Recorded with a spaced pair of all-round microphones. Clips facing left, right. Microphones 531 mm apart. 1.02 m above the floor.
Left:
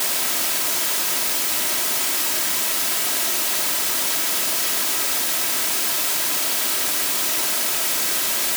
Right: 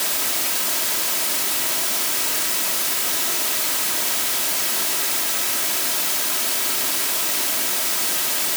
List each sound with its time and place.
Only background noise.